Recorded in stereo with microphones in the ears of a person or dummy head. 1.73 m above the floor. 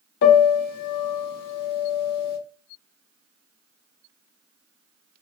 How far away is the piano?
About 0.5 m.